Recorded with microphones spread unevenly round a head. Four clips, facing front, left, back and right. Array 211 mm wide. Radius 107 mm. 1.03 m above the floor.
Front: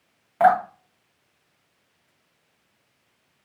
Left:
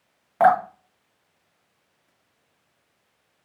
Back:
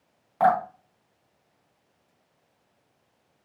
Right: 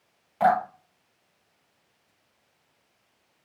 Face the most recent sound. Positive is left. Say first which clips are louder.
# left 4 dB, front 4 dB
turn(degrees=65)